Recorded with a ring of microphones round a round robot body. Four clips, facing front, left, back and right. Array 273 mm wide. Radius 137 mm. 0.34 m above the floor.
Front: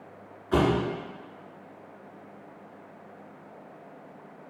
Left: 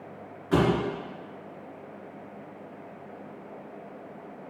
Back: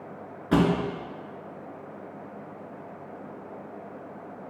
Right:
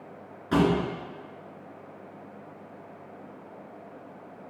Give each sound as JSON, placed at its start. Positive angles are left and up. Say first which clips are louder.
{"t": 0.5, "sound": "a thud", "louder": "even, back 1 dB", "azimuth_deg": -175, "distance_m": 2.5}